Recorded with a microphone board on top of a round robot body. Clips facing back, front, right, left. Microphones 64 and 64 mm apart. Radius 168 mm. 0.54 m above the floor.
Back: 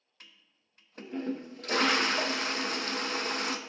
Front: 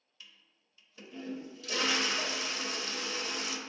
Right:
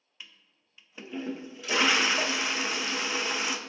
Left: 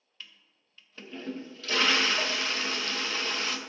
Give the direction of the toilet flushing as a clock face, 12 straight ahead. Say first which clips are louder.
Back 1 dB, even; 5 o'clock.